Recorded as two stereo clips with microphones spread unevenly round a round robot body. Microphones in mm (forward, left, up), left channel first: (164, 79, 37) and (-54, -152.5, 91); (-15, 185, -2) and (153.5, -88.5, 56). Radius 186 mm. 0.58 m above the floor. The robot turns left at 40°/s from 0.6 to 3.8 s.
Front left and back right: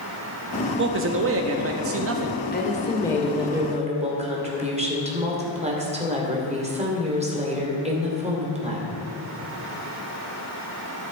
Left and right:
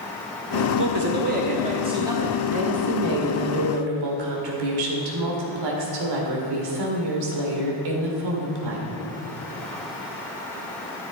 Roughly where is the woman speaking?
Ahead.